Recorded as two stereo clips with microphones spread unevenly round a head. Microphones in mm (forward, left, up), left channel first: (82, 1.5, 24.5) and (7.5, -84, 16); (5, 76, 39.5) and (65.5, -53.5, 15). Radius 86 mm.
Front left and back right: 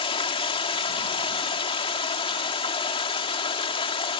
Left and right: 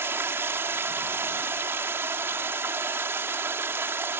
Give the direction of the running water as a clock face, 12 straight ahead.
12 o'clock.